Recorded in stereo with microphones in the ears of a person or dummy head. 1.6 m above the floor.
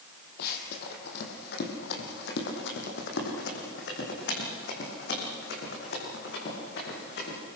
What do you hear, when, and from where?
0.4 s running footsteps: 55° left (ahead or behind), 3 m; by 7.4 s 60° left (ahead or behind), 8 m